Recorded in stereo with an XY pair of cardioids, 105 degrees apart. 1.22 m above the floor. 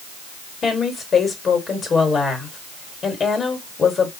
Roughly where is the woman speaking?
Ahead left.